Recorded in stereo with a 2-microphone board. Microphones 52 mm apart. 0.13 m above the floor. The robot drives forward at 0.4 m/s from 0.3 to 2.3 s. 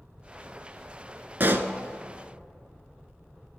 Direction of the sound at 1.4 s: 45° right (ahead or behind).